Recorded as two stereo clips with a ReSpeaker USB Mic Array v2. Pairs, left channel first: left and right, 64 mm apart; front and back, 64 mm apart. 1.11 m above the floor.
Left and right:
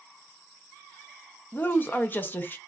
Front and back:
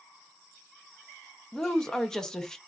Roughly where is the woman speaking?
Left.